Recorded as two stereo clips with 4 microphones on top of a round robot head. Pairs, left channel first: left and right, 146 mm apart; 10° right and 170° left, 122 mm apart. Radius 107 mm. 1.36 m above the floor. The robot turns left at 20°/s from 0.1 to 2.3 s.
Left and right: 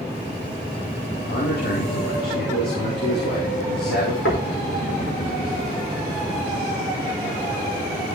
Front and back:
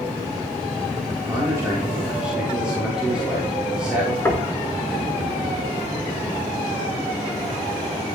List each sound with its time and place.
1.3 s a man speaking: 105° left, 4 m; by 4.2 s 85° left, 4 m
4.2 s knocking: 60° left, 3.5 m